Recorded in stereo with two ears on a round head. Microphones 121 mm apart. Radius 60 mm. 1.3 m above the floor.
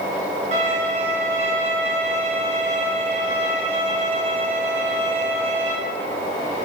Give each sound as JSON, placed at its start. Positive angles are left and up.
{"t": 0.5, "sound": "a violin", "side_deg": -50, "distance_m": 4.5}